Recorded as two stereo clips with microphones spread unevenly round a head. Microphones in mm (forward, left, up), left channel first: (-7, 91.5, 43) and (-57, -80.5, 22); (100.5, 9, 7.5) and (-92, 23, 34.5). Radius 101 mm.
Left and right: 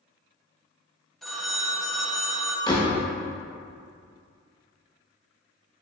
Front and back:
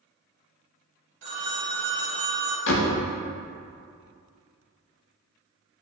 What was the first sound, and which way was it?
A phone ringing, 160° left.